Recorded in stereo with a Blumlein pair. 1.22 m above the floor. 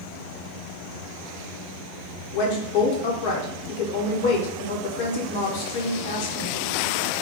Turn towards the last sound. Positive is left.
turn(degrees=45)